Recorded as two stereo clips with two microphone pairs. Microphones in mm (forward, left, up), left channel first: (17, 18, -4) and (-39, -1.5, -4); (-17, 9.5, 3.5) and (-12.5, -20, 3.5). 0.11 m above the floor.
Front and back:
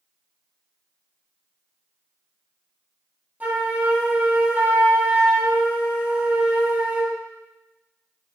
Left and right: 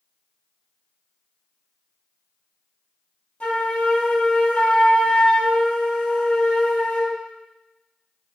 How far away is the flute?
About 1.9 m.